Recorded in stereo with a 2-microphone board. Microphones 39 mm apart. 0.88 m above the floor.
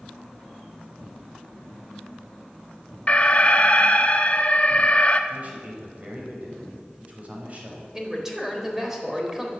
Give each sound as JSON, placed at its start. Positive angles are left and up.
{"t": 3.1, "sound": "an alarm", "side_deg": 35, "distance_m": 1.0}
{"t": 5.3, "sound": "a man speaking", "side_deg": -40, "distance_m": 5.0}
{"t": 7.9, "sound": "a man speaking", "side_deg": -10, "distance_m": 3.5}